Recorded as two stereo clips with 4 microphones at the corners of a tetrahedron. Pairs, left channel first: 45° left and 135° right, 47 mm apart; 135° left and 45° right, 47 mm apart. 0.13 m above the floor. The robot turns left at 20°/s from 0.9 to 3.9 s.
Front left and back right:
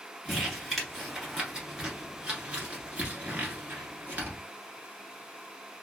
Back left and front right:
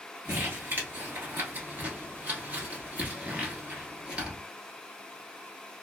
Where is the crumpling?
50° right, 1.3 m; by 4.4 s 110° right, 1.3 m.